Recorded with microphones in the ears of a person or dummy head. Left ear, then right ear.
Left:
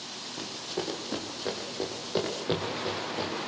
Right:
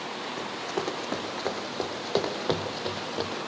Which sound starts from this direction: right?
Running footsteps, at 0.4 s.